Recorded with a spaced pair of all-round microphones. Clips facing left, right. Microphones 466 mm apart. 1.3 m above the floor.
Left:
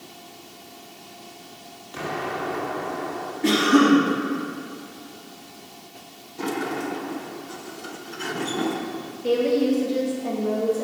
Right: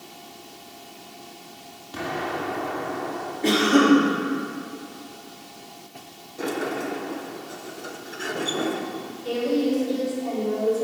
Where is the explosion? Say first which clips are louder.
Right 1 dB; 55° right (ahead or behind), 2.0 m.